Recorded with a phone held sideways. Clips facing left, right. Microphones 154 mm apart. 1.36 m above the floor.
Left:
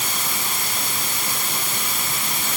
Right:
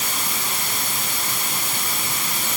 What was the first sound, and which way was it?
Only background noise.